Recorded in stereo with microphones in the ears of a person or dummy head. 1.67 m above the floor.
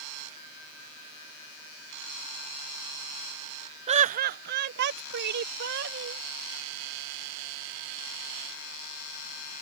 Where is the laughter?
30° right (ahead or behind); by 6.2 s 65° right (ahead or behind).